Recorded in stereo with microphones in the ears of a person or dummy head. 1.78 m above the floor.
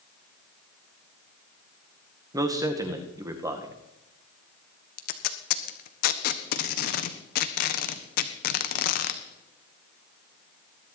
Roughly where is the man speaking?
Centre.